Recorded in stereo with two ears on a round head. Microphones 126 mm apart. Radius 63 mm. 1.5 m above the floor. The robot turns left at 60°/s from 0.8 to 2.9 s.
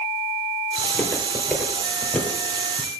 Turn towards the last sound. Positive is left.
turn(degrees=-5)  # may be behind; listen again after turning